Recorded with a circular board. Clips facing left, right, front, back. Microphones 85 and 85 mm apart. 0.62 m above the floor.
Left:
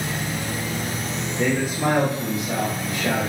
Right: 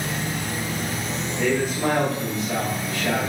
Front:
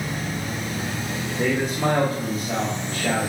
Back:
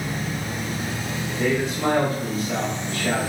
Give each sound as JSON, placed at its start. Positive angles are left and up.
{"t": 1.4, "sound": "a man speaking", "azimuth_deg": 25, "distance_m": 1.1}